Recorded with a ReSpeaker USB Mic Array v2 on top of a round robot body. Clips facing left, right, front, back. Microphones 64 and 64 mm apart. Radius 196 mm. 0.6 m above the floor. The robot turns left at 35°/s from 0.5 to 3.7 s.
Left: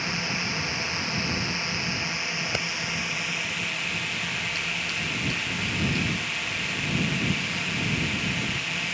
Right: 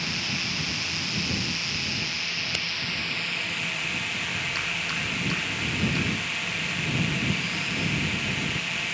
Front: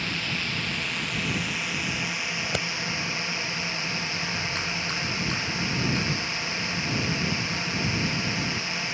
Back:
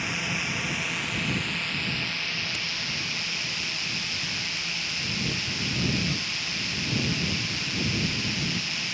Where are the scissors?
35° left; by 2.7 s 25° left.